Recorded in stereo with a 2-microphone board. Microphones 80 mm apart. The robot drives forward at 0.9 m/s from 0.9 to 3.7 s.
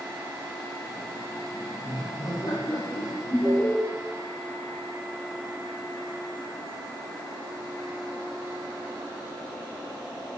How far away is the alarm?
About 4 m.